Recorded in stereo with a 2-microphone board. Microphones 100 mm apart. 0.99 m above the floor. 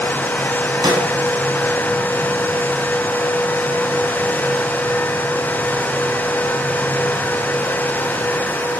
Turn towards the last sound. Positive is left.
turn(degrees=-40)  # may be behind; listen again after turning